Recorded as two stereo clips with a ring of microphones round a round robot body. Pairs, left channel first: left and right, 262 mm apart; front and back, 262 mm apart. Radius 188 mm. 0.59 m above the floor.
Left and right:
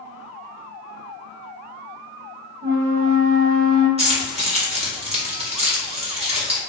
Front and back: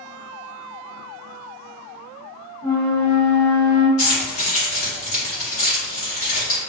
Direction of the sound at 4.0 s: 25° right.